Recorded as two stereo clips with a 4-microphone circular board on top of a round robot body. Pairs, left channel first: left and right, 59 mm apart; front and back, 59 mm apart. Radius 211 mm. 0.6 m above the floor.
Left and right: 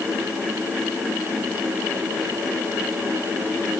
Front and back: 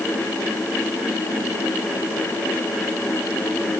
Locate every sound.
Only background noise.